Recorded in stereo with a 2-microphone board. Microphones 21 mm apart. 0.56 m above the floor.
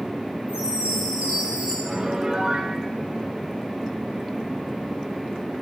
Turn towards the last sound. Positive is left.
turn(degrees=-35)  # may be behind; listen again after turning